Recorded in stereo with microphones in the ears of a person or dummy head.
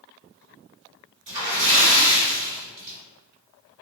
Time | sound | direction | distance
1.3 | a splash | 40° right (ahead or behind) | 2.0 m